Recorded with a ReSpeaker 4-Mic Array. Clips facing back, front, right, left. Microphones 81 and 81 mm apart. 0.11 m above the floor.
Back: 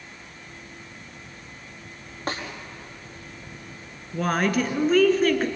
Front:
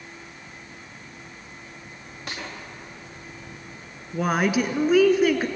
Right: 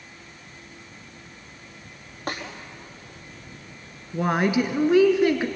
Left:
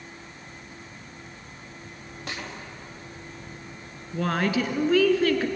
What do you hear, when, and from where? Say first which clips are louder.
2.3 s a snare drum: back 5 dB, right 5 dB; 135° right, 4.5 m
4.1 s a woman speaking: front 1 dB, right 3 dB; 65° right, 1.6 m